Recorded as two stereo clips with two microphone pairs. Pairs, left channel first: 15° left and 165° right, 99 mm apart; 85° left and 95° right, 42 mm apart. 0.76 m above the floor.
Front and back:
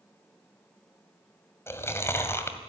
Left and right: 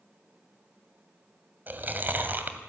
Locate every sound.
1.7 s chewing: 50° right, 2 m